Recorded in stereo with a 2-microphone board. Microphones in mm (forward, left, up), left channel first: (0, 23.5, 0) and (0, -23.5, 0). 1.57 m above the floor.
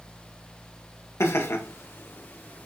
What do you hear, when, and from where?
1.2 s laughter: 70° left (ahead or behind), 2.5 m; by 2.7 s 35° left (ahead or behind), 3 m